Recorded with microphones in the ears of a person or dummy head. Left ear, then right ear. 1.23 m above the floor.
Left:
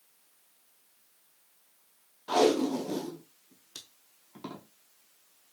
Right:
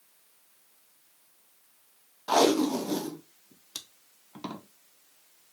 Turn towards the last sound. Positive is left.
turn(degrees=-20)  # may be behind; listen again after turning